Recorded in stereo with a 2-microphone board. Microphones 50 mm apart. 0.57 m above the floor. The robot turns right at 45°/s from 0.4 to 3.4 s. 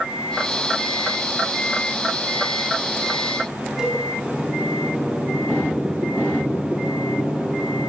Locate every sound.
3.8 s a cowbell: 10° right (ahead or behind), 6 m